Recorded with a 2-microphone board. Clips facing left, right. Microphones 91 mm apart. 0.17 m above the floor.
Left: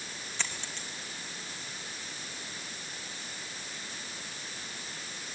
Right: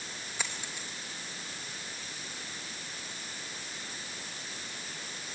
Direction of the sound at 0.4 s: 10° right (ahead or behind).